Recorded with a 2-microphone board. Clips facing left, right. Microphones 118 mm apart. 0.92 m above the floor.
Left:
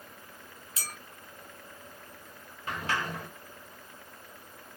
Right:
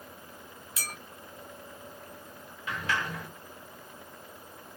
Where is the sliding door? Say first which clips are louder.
Even; 40° left (ahead or behind), 1.4 m.